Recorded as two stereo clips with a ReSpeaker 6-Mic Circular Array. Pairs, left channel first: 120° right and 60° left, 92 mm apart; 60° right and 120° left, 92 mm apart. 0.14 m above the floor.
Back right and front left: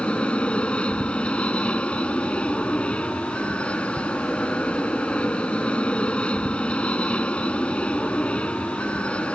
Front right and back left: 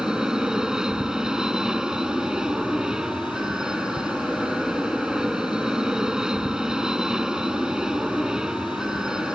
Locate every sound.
0.0 s an aircraft: 170° right